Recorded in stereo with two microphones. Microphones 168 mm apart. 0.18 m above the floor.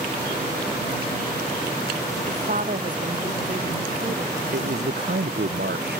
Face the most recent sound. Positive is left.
turn(degrees=-75)  # may be behind; listen again after turning